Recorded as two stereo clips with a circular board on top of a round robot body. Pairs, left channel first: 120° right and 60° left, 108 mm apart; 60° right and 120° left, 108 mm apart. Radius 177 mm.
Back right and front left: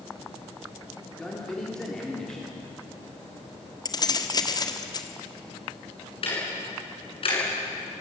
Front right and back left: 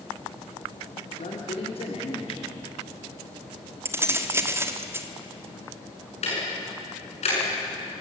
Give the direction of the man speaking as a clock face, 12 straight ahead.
1 o'clock.